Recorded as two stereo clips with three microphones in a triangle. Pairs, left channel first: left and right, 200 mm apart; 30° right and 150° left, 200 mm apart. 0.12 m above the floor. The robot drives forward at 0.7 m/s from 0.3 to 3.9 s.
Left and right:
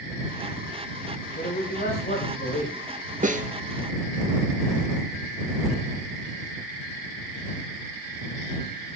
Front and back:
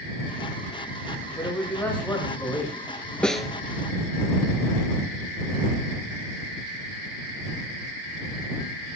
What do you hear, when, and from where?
1.4 s a man speaking: 45° left, 6.5 m; by 2.9 s 55° left, 6 m
3.2 s a snare drum: 115° right, 1.3 m; by 3.5 s 125° right, 1.3 m